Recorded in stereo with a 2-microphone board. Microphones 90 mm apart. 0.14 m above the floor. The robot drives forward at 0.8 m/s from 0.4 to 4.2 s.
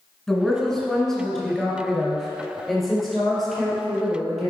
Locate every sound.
0.3 s a woman speaking: 5° left (ahead or behind), 1.7 m; by 4.5 s centre (ahead or behind), 4 m